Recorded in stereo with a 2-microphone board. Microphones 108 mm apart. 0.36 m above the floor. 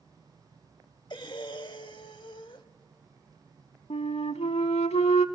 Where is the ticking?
I don't hear ticking.